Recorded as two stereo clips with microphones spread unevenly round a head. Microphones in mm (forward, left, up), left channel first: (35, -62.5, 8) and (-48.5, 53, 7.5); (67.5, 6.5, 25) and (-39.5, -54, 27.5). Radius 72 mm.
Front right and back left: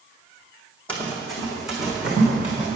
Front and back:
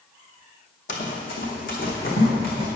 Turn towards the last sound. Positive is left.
turn(degrees=45)